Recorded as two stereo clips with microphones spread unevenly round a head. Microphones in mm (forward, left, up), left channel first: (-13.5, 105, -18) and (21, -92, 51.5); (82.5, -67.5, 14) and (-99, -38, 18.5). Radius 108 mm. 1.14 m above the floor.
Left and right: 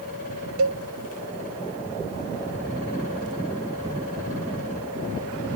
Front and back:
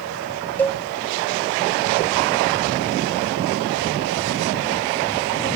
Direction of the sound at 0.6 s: 85° right.